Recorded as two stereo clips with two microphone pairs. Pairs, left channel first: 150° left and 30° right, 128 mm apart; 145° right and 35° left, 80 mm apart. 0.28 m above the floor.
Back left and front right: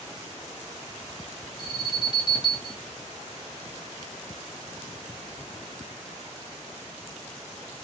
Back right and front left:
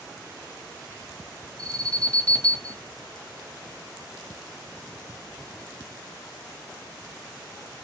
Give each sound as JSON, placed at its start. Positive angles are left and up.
{"t": 1.6, "sound": "an alarm", "azimuth_deg": 160, "distance_m": 2.5}